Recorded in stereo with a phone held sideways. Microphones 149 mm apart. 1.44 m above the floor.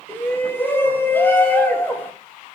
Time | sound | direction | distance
0.1 | a shout | 15° left (ahead or behind) | 3 m